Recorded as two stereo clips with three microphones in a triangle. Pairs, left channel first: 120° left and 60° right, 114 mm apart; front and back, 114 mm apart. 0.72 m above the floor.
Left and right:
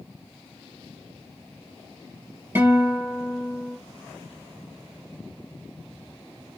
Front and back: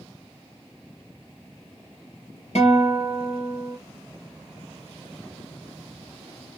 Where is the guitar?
15° left, 2 m.